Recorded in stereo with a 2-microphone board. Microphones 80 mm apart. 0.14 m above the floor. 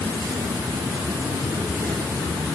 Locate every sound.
0.0 s an insect: 60° right (ahead or behind), 1.1 m